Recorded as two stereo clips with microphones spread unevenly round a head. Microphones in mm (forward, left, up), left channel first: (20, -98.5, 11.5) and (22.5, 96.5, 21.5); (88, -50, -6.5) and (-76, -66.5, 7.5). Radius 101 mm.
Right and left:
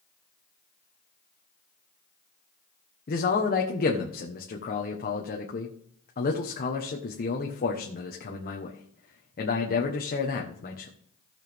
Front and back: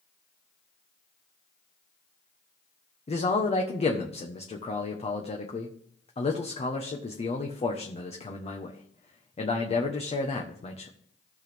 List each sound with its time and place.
3.1 s a man speaking: 45° right, 1.2 m